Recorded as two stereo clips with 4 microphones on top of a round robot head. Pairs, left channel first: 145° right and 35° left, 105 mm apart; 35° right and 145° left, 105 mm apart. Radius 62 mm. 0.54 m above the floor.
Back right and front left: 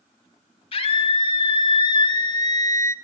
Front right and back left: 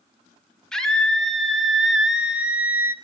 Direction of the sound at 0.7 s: 120° right.